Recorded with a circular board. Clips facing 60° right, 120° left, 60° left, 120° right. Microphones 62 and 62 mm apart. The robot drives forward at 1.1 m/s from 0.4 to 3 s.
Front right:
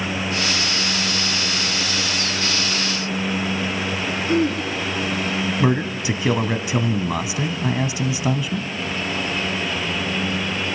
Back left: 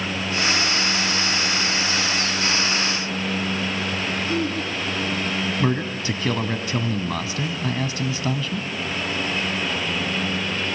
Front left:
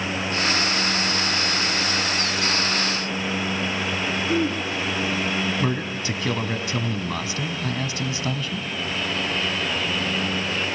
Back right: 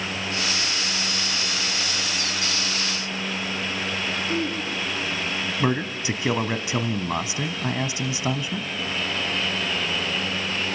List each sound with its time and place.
4.3 s throat clearing: 10° right, 3 m
5.6 s a man speaking: 105° right, 1.1 m